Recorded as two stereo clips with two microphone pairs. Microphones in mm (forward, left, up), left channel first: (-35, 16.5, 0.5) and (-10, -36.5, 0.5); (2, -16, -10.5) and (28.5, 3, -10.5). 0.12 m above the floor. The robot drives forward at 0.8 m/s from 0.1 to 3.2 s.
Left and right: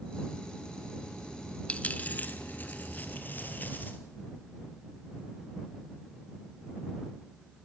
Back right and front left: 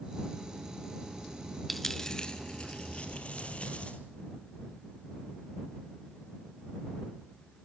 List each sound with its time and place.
1.7 s a dropped coin: 135° left, 0.7 m; by 4.0 s 170° left, 1.5 m
3.1 s a sliding door: 140° right, 3 m